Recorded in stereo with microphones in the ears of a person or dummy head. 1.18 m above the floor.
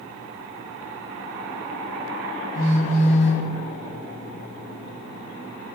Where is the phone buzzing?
45° left (ahead or behind), 1.4 m.